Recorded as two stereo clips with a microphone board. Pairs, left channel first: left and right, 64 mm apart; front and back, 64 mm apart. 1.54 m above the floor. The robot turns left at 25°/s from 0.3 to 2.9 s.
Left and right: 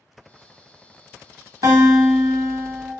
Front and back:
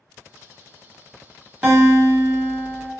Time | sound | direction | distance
1.6 | a guitar | 120° right | 1.1 m